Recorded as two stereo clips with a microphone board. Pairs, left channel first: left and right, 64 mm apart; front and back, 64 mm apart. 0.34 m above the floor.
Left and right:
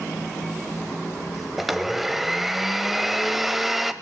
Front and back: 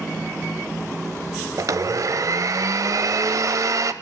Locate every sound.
1.6 s a blender: 175° right, 0.7 m